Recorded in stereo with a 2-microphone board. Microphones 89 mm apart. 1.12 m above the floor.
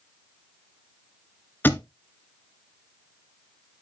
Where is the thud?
20° left (ahead or behind), 1.1 m.